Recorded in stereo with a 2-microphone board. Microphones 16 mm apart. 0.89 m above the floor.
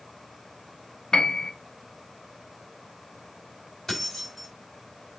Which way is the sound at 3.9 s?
25° left (ahead or behind).